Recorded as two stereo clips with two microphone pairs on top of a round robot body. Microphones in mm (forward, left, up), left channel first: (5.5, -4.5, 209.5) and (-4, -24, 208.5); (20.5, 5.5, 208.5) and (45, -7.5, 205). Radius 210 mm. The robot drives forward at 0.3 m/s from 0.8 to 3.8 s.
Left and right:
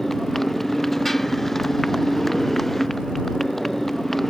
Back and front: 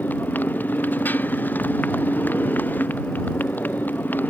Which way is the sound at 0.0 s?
145° left.